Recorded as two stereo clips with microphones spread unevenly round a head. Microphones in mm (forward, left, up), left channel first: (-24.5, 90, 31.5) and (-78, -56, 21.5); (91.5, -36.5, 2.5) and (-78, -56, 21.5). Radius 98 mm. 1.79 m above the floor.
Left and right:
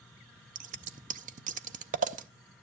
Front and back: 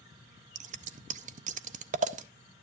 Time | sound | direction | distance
0.6 | scissors | 140° right | 0.5 m